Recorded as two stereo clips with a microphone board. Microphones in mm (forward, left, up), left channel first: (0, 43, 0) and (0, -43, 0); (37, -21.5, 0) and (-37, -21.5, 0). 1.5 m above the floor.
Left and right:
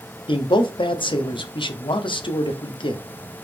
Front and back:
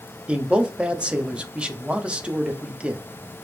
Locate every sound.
0.3 s a man speaking: 105° left, 0.5 m